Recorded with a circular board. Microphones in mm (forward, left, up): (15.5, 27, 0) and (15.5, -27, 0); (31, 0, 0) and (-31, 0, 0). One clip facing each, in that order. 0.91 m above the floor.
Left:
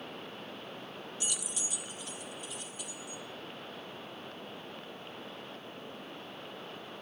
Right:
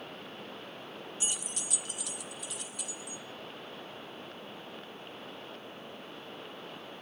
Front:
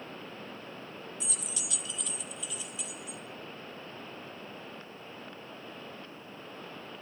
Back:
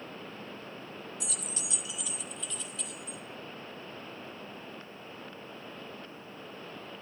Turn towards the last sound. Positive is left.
turn(degrees=-70)